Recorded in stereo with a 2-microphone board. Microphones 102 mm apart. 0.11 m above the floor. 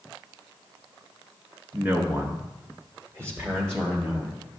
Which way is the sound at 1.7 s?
20° right (ahead or behind).